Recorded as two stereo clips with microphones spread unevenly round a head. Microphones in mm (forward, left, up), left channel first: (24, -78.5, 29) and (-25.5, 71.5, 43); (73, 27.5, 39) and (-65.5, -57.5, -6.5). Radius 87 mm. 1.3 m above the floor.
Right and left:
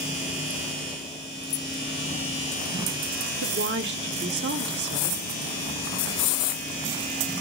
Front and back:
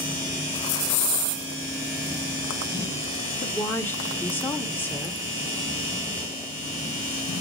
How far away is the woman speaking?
About 1.3 m.